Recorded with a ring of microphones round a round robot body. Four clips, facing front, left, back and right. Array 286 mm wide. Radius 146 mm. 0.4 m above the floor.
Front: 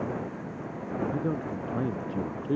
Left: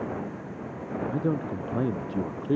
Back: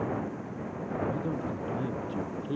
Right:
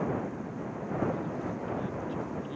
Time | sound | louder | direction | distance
1.1 | a man speaking | left 6 dB, front 2 dB | 70° left | ?